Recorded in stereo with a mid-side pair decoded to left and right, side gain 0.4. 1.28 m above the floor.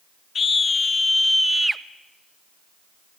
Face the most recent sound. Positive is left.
turn(degrees=-25)